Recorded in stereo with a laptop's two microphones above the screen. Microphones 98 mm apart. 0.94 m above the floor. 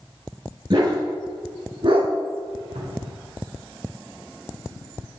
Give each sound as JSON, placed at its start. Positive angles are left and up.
{"t": 0.7, "sound": "a dog barking", "side_deg": -45, "distance_m": 5.5}
{"t": 2.8, "sound": "a cupboard door", "side_deg": -80, "distance_m": 3.0}